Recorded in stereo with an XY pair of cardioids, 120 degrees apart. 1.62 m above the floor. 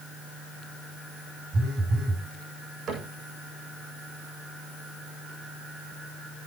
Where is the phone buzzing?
60° right, 4 m.